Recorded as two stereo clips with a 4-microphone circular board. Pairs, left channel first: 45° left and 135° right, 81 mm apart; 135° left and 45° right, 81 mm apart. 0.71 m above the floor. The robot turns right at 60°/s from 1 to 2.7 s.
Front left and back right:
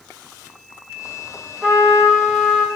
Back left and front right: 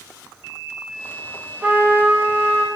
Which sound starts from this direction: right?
A trumpet, at 1.6 s.